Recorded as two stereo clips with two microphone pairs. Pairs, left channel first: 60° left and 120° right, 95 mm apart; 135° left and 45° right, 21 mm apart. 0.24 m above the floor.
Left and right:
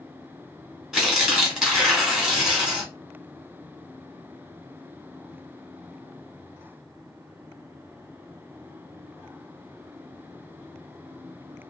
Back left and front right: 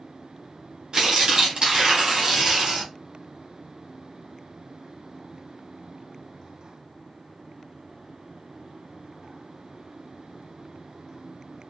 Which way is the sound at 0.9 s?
40° right.